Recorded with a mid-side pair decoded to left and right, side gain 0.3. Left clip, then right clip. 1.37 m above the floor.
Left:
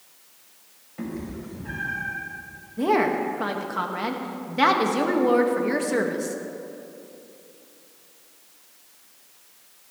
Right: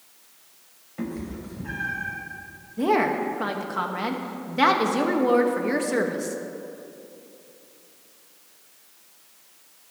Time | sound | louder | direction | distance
1.0 | a cat meowing | right 1 dB | 25° right | 4 m
2.8 | a woman speaking | even | 5° right | 1.9 m